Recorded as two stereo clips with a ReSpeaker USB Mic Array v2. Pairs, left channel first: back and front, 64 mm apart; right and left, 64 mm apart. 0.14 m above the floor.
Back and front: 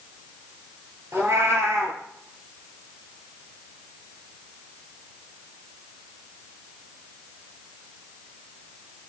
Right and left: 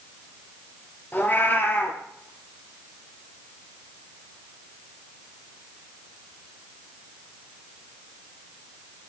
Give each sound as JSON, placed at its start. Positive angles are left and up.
{"t": 1.1, "sound": "a cat meowing", "azimuth_deg": -35, "distance_m": 1.7}